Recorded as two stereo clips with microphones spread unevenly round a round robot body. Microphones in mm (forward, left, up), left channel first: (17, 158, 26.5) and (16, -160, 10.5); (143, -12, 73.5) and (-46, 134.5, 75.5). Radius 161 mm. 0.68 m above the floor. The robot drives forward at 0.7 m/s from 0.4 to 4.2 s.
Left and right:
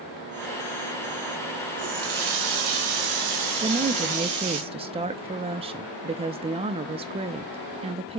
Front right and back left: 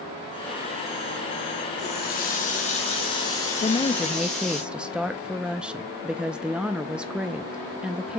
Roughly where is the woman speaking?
Ahead right.